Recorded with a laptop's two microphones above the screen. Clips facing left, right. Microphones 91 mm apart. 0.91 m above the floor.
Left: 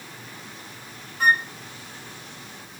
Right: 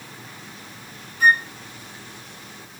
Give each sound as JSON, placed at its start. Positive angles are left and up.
{"t": 1.2, "sound": "a flute", "side_deg": 50, "distance_m": 1.4}